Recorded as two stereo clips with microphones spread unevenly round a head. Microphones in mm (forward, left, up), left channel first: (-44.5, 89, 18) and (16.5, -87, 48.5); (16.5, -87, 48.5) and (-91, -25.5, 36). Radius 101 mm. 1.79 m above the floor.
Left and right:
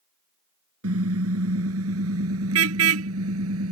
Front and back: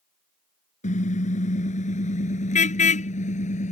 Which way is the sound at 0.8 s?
55° right.